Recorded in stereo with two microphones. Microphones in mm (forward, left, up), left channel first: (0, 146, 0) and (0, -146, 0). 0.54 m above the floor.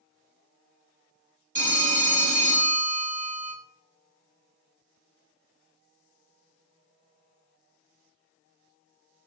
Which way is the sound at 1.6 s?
25° right (ahead or behind).